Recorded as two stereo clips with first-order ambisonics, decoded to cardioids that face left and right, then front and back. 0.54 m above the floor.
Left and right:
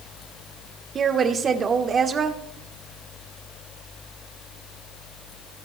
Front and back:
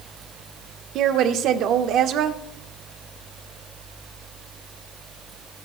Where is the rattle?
No rattle in this recording.